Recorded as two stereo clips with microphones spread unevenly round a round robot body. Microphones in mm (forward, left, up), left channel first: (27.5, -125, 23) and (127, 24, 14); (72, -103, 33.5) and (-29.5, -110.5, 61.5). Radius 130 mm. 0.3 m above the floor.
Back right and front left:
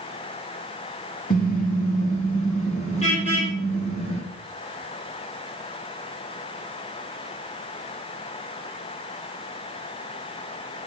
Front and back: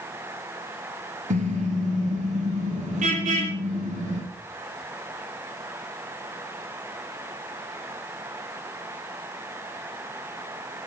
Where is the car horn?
175° left, 3.5 m; by 4.2 s 165° left, 7 m.